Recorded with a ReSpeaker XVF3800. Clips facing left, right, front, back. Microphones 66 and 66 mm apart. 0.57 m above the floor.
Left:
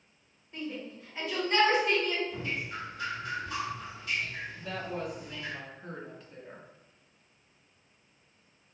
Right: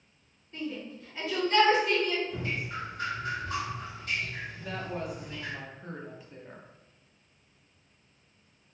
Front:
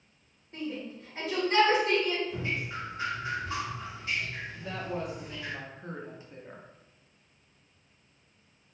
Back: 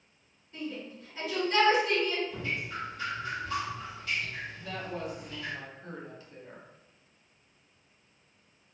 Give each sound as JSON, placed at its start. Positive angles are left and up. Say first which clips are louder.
{"t": 0.5, "sound": "a shout", "louder": "right 2 dB, front 2 dB", "azimuth_deg": 10, "distance_m": 1.2}
{"t": 2.3, "sound": "dripping", "louder": "right 1 dB, front 1 dB", "azimuth_deg": -60, "distance_m": 1.2}
{"t": 4.5, "sound": "a woman speaking", "louder": "even, front 4 dB", "azimuth_deg": -10, "distance_m": 0.6}